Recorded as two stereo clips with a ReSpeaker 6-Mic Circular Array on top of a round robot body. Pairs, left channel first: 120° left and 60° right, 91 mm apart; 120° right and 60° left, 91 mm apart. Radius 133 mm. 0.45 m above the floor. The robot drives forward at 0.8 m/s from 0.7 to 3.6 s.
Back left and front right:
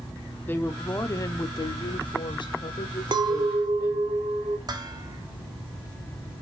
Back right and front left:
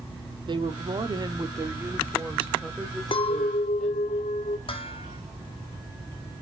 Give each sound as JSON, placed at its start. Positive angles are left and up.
{"t": 0.5, "sound": "a woman speaking", "azimuth_deg": 55, "distance_m": 1.2}
{"t": 3.1, "sound": "a clink", "azimuth_deg": -95, "distance_m": 0.9}
{"t": 4.7, "sound": "dishes clattering", "azimuth_deg": -105, "distance_m": 1.7}